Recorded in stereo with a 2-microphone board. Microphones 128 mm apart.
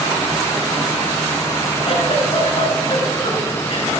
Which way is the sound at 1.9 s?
55° left (ahead or behind).